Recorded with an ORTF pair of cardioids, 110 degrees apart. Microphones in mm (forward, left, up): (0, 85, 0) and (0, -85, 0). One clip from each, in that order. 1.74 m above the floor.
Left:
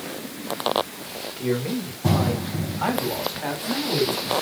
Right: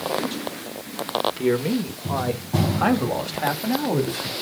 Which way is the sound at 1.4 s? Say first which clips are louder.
Right 4 dB; 35° right.